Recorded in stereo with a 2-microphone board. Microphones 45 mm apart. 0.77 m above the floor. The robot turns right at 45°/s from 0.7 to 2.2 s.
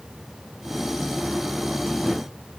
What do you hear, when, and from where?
Only background noise.